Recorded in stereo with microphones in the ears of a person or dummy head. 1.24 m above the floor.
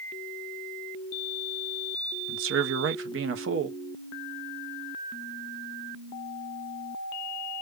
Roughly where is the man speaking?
Right.